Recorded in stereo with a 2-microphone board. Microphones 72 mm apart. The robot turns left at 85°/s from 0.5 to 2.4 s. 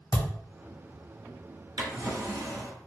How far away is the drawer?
About 1.2 m.